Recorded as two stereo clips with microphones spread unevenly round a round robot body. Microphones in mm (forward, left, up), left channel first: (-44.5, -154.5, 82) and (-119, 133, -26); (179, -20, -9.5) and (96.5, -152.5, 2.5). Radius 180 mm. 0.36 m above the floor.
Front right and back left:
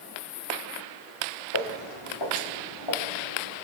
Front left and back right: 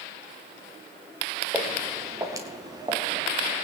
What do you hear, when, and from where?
1.5 s footsteps: 40° right, 3 m; by 3.6 s 60° right, 4 m